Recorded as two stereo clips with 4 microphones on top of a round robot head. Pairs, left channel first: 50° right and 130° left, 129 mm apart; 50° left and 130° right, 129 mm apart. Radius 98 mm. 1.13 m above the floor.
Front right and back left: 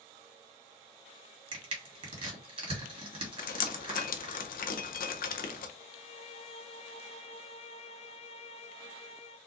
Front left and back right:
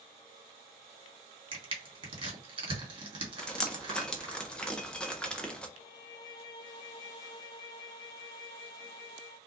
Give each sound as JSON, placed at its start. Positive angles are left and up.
{"t": 1.5, "sound": "crushing", "azimuth_deg": 180, "distance_m": 2.5}
{"t": 3.4, "sound": "dripping", "azimuth_deg": -35, "distance_m": 0.7}
{"t": 5.8, "sound": "a violin", "azimuth_deg": -10, "distance_m": 0.6}